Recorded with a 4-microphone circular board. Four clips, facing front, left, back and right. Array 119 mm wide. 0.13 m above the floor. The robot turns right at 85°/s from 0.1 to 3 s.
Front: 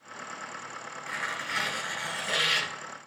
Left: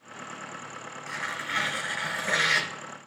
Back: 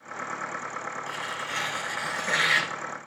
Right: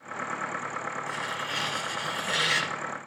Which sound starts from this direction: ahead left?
Tearing paper, at 1.1 s.